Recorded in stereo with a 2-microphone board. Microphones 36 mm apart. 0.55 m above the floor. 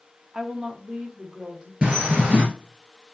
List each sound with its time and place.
0.3 s a woman speaking: 15° right (ahead or behind), 0.8 m; by 1.7 s 25° right (ahead or behind), 2 m
1.8 s a bird: 30° right (ahead or behind), 2.5 m